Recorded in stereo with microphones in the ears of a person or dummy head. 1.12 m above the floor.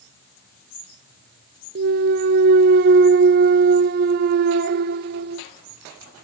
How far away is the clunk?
About 0.5 m.